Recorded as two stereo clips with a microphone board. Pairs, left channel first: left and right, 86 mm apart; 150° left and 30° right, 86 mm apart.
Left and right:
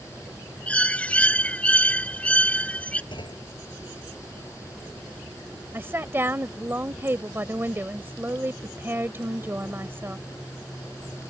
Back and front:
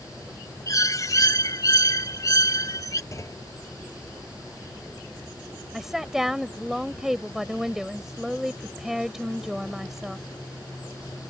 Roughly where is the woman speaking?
Right.